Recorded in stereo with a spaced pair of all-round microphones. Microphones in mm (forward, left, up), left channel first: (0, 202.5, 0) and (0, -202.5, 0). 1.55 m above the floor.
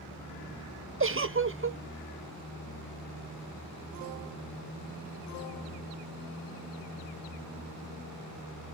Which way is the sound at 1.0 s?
30° right (ahead or behind).